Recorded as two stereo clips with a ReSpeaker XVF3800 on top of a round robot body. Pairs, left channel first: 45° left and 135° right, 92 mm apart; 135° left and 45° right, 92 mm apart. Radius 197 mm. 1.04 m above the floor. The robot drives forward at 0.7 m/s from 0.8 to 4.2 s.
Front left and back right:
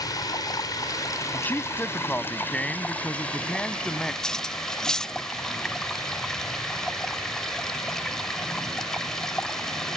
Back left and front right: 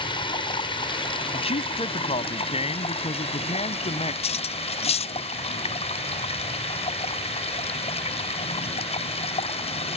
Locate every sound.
0.0 s running water: 100° left; by 10.0 s 130° left
1.3 s a man speaking: 115° left; by 4.1 s 130° left
4.2 s cutlery clinking: 130° left